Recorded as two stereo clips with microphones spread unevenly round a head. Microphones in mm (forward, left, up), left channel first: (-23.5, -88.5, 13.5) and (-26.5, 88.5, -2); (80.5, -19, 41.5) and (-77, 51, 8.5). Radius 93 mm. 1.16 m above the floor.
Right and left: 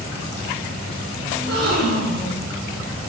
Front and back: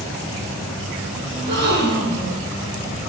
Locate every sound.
1.3 s a gasp: 125° left, 7 m